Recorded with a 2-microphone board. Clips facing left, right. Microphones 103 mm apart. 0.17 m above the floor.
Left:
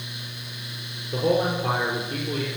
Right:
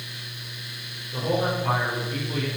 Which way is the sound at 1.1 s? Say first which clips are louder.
Left 3 dB; 50° left (ahead or behind).